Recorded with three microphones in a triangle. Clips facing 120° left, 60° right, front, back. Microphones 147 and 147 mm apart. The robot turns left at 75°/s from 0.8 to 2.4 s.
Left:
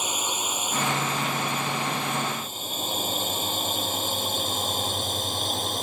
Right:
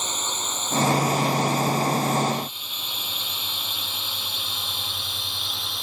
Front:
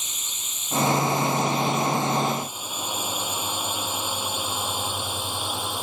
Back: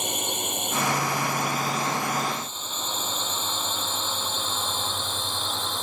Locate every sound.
0.0 s a drone: 160° right; by 5.8 s 80° left